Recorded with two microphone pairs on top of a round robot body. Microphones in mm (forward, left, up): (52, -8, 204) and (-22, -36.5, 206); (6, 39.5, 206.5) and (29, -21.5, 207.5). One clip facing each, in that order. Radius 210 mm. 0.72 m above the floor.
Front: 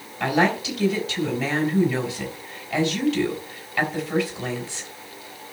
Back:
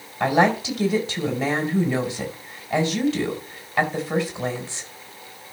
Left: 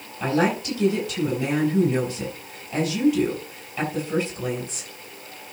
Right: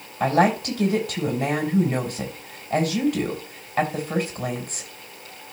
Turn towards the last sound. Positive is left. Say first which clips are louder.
# back 2 dB, right 3 dB
turn(degrees=-100)